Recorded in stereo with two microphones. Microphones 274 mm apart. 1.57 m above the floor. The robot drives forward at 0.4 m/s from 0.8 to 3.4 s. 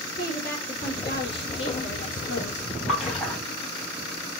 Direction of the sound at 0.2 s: 40° left (ahead or behind).